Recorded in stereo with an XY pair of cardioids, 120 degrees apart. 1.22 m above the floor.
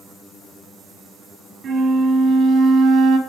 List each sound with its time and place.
1.6 s a flute: 55° right, 1.4 m